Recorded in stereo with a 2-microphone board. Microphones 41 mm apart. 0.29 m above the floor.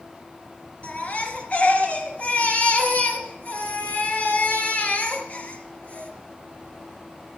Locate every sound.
0.8 s a baby crying: 40° left (ahead or behind), 3 m